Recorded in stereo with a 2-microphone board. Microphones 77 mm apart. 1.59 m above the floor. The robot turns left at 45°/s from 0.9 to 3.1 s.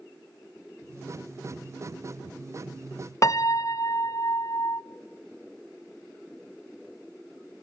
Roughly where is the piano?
Left.